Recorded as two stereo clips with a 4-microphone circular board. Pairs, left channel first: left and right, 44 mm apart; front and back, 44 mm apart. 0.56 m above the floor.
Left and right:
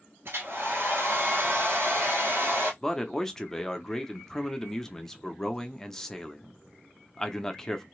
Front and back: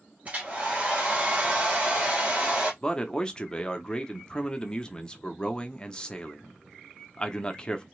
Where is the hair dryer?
120° right, 1.7 m.